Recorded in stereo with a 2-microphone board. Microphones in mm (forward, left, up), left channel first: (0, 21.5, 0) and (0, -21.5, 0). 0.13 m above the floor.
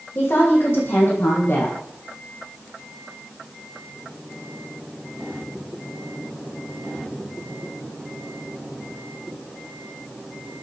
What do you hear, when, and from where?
0.1 s a woman speaking: 65° left (ahead or behind), 6 m; by 1.8 s 60° left (ahead or behind), 5 m